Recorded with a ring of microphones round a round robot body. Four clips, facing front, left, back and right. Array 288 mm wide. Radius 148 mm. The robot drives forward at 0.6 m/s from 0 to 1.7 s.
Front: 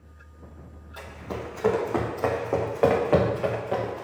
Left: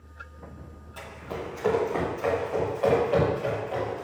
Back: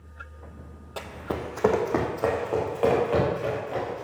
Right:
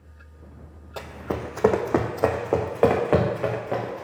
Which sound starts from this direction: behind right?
Running footsteps, at 1.0 s.